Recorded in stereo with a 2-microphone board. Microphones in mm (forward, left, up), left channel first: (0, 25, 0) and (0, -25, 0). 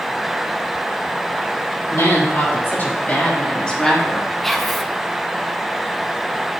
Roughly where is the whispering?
Centre.